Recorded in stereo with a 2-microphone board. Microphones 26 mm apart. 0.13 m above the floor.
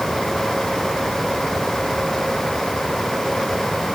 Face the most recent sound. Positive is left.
No sound to turn to.